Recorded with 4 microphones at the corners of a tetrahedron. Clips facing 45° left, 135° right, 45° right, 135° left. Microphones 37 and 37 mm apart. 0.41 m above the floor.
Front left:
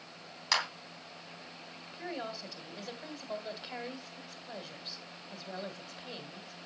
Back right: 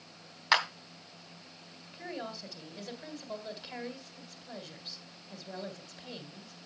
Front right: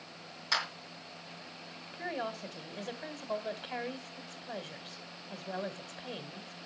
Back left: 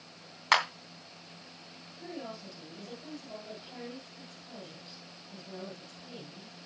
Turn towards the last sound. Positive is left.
turn(degrees=-30)